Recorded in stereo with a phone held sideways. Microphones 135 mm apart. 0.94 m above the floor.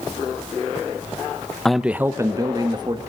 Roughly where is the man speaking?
Centre.